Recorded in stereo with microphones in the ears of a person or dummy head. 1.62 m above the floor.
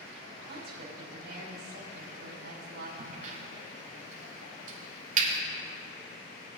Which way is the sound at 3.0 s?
50° right (ahead or behind).